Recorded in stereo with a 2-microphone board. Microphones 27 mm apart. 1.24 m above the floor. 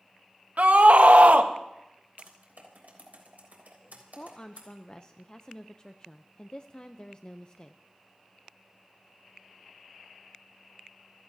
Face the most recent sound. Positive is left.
turn(degrees=30)  # may be behind; listen again after turning